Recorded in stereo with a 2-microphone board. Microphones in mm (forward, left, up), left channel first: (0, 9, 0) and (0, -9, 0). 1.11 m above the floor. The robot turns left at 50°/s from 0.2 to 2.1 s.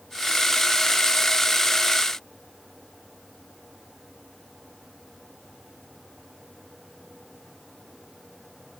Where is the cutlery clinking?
I don't hear cutlery clinking.